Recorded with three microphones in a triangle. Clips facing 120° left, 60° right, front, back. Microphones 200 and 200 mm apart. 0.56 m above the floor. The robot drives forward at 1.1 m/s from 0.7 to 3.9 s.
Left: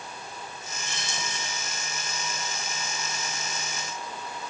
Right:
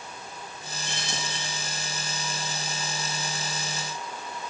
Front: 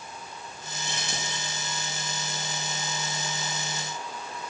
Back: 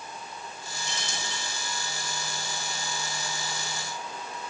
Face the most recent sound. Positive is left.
turn(degrees=-50)